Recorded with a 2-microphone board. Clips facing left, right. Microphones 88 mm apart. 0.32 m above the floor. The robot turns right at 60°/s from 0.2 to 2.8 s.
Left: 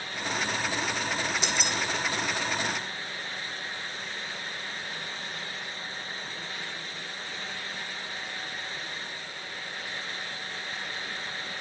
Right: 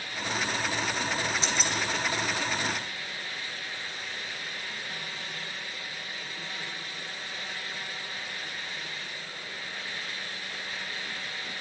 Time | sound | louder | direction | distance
1.4 | keys jangling | even | 30° right (ahead or behind) | 1.1 m